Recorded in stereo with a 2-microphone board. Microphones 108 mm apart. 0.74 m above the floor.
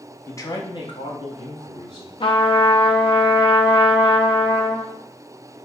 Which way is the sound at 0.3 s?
25° left (ahead or behind).